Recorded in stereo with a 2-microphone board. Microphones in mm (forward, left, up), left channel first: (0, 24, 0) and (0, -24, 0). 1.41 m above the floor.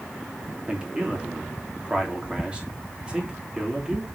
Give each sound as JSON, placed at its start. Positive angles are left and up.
{"t": 0.7, "sound": "a man speaking", "side_deg": -20, "distance_m": 3.0}